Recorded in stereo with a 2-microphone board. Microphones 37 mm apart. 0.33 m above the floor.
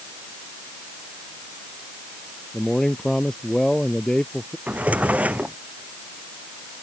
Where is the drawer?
45° right (ahead or behind).